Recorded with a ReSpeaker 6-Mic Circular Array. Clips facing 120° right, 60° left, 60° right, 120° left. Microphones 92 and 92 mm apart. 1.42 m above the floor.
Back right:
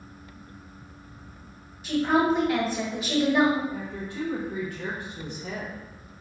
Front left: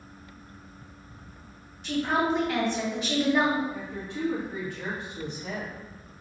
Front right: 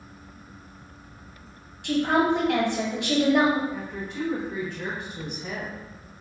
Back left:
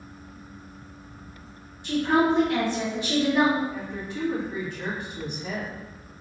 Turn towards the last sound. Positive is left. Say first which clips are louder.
# back right 1 dB, even
turn(degrees=45)